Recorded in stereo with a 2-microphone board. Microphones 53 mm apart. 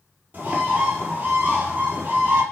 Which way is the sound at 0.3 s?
35° right (ahead or behind).